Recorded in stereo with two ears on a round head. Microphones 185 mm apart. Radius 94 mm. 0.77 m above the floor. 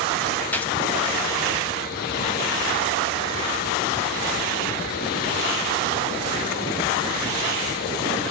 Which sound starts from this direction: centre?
A gunshot, at 0.5 s.